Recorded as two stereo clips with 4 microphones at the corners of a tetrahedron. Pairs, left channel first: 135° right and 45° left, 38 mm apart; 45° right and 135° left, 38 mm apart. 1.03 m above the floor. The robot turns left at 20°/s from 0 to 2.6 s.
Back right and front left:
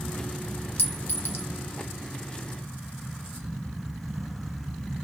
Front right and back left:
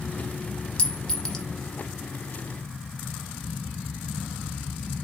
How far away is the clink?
About 0.9 m.